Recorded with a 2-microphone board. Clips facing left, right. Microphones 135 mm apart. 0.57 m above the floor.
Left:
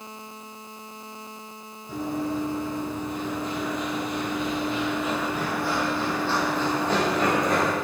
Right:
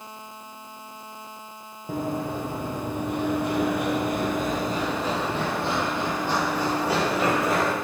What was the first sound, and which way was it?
Running footsteps, 50° right (ahead or behind).